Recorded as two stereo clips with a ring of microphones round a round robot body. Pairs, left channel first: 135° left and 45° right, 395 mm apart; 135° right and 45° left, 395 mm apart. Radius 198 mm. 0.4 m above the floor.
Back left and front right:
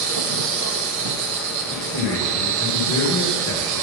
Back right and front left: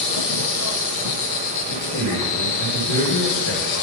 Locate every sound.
0.0 s an insect: 90° right, 1.1 m
1.7 s a man speaking: 175° right, 1.9 m